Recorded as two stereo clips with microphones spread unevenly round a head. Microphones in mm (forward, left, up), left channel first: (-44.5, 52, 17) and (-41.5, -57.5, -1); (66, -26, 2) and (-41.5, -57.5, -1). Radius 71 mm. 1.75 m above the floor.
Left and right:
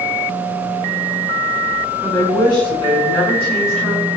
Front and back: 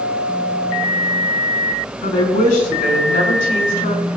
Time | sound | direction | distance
2.0 | a woman speaking | 25° left | 4.5 m